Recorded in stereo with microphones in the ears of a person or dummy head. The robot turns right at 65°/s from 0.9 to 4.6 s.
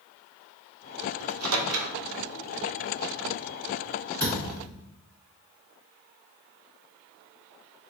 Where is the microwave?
85° right, 0.5 m; by 1.9 s 45° right (ahead or behind), 0.5 m.